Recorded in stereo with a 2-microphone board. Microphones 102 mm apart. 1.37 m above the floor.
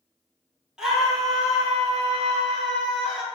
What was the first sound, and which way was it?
A scream, 5° right (ahead or behind).